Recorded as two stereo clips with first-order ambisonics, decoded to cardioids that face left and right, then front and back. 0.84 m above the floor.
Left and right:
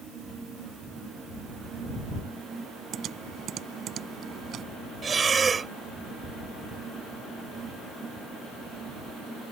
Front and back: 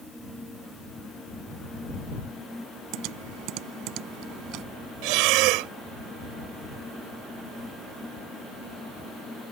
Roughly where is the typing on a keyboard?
Behind right.